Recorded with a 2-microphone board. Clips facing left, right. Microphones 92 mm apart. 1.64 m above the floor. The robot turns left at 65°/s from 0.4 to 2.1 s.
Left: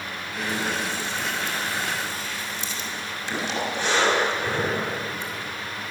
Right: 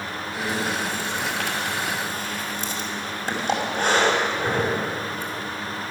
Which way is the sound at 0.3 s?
25° right (ahead or behind).